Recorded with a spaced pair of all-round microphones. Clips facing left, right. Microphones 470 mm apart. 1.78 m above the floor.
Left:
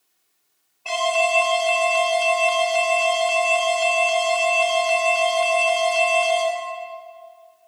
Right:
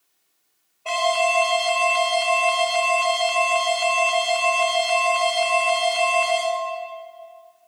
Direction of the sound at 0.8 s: 10° left (ahead or behind).